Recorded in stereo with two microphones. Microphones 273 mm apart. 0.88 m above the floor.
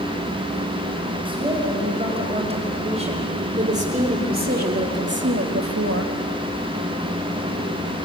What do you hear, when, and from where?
1.2 s a woman speaking: 20° right (ahead or behind), 6.5 m; by 6.1 s 55° right (ahead or behind), 1.5 m